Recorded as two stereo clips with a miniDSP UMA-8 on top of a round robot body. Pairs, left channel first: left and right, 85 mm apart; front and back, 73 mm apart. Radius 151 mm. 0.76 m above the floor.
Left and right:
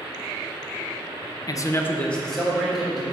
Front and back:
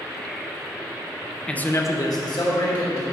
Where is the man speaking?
75° left, 0.7 m; by 3.0 s 5° right, 1.7 m.